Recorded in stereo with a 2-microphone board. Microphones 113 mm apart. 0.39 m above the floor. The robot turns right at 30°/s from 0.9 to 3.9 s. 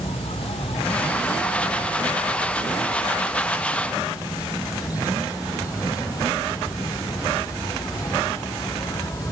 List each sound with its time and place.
0.0 s an insect: 60° left; by 9.3 s 150° left